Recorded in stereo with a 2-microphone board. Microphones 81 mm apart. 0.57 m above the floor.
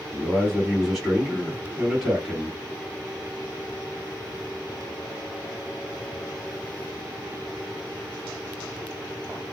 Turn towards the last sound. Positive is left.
turn(degrees=-10)  # may be behind; listen again after turning